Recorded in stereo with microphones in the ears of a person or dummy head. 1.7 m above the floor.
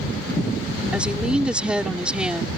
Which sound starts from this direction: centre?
A woman speaking, at 0.9 s.